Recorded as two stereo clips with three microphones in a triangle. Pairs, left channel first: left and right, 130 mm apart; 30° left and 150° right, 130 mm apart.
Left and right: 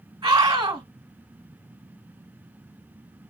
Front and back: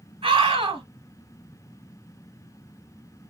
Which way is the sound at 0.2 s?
130° right.